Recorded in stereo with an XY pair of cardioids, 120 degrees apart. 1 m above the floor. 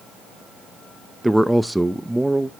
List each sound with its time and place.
1.2 s a man speaking: 5° right, 0.6 m